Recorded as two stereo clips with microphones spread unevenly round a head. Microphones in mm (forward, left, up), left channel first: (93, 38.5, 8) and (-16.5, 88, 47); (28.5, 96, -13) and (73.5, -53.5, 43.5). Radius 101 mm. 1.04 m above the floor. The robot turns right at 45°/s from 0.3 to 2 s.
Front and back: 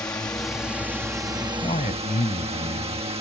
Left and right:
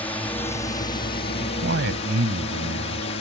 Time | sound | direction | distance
0.0 | a drone | 45° left | ?
1.4 | a man speaking | 105° right | ?